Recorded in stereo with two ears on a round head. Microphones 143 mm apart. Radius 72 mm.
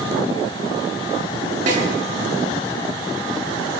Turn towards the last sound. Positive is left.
turn(degrees=-55)  # may be behind; listen again after turning